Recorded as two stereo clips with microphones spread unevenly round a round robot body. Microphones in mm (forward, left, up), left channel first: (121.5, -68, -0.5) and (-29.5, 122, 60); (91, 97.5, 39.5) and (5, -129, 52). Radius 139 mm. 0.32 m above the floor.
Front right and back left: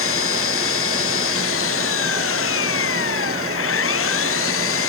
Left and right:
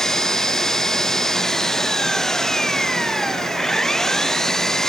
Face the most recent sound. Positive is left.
turn(degrees=-20)